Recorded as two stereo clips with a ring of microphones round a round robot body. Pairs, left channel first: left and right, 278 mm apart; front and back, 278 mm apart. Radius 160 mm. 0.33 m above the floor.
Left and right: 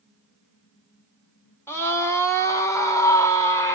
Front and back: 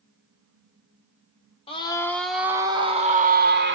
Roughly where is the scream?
Ahead left.